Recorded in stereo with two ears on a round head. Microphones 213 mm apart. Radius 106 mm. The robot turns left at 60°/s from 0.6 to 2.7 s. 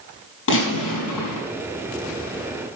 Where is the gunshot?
125° left, 6 m; by 1.5 s 70° left, 6 m.